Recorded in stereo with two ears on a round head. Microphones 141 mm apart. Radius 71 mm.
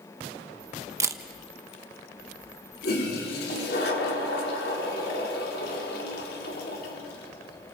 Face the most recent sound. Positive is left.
turn(degrees=70)  # may be behind; listen again after turning